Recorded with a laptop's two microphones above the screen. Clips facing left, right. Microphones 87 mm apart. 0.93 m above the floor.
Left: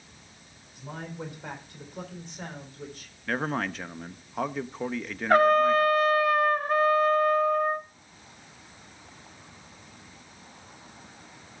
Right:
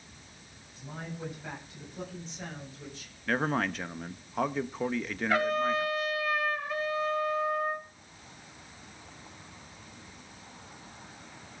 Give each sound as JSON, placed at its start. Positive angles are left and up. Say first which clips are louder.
{"t": 0.8, "sound": "a man speaking", "louder": "left 3 dB", "side_deg": 75, "distance_m": 3.5}
{"t": 3.3, "sound": "a man speaking", "louder": "even", "side_deg": 0, "distance_m": 0.7}
{"t": 5.3, "sound": "a trumpet", "louder": "left 9 dB", "side_deg": 45, "distance_m": 1.0}